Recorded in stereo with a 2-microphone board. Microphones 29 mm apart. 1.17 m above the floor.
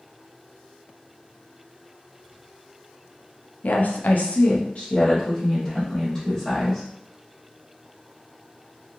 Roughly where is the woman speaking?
Left.